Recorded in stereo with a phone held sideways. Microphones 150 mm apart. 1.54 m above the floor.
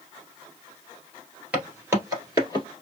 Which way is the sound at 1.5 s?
10° right (ahead or behind).